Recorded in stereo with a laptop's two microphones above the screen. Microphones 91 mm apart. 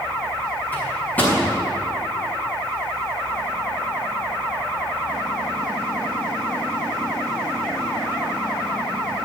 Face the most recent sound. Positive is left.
turn(degrees=20)  # may be behind; listen again after turning